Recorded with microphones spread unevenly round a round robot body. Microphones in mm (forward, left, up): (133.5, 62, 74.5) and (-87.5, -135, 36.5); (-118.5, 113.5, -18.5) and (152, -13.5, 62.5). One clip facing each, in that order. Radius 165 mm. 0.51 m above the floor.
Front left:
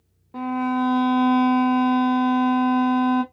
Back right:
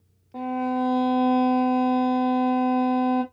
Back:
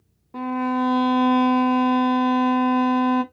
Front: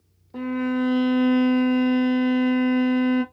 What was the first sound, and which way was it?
A violin, 105° left.